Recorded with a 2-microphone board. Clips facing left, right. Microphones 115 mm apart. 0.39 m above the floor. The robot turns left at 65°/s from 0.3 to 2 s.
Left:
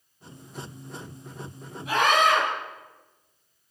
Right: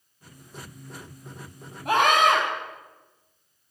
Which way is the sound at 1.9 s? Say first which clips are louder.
Right 2 dB; 65° right (ahead or behind).